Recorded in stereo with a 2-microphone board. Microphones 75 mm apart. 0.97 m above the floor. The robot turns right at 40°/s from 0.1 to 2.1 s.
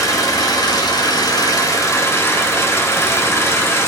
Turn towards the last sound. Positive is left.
turn(degrees=135)